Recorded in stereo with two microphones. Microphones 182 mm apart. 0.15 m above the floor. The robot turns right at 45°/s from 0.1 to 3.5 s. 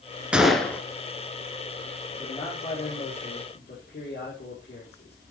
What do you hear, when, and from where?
0.3 s a gunshot: 5° right (ahead or behind), 1.7 m; by 0.8 s 10° left (ahead or behind), 1.7 m
2.2 s a man speaking: 30° left, 5 m; by 5.2 s 85° left, 5 m